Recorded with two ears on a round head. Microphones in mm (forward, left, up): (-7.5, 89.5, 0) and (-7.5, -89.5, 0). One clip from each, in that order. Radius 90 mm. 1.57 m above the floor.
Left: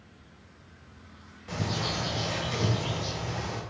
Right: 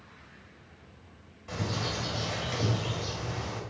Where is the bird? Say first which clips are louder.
Left 2 dB; centre (ahead or behind), 2 m.